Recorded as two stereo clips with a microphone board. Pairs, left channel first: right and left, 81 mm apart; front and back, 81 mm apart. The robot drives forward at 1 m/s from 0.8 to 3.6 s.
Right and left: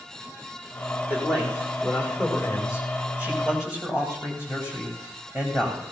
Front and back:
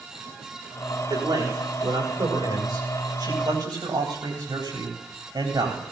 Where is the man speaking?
160° left, 7.5 m; by 5.8 s 165° left, 10 m.